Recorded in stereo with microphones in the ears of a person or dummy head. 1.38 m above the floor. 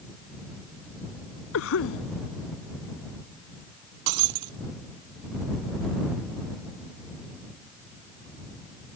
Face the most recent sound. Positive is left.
turn(degrees=-50)  # may be behind; listen again after turning